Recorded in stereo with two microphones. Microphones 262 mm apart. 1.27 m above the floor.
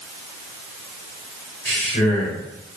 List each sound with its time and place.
1.6 s a man speaking: 40° left (ahead or behind), 6 m